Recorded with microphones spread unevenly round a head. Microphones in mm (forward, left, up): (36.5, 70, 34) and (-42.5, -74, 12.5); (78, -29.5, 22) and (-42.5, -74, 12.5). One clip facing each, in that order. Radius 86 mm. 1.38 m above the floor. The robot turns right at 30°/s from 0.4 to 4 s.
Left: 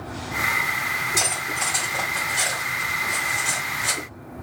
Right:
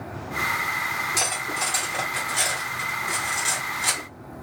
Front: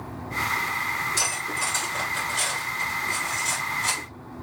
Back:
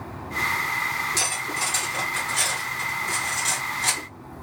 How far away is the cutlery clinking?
About 1.7 m.